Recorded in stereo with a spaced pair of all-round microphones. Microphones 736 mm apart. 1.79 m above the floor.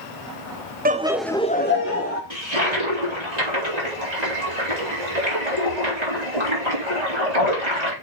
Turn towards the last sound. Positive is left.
turn(degrees=-65)  # may be behind; listen again after turning